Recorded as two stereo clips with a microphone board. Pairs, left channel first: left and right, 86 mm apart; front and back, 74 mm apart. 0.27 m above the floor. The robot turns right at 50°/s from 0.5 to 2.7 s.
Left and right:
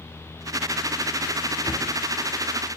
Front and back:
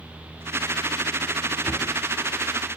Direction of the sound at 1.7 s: 55° left.